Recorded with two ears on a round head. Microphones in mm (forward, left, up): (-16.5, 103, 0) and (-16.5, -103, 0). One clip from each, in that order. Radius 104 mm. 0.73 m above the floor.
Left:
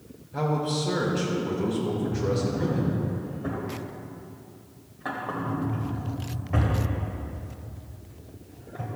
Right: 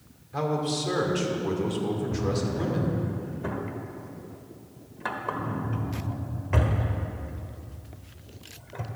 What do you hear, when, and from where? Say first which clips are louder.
0.3 s a man speaking: even; 70° right (ahead or behind), 2 m
2.1 s a drawer: left 2 dB; 65° right (ahead or behind), 1.2 m